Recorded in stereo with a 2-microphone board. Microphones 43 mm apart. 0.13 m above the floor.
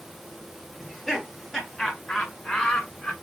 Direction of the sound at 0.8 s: 5° left (ahead or behind).